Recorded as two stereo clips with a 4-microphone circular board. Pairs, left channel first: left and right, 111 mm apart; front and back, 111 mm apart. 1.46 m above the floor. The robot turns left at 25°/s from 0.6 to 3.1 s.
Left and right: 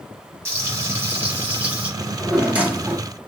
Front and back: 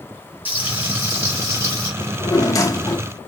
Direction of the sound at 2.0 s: 10° right.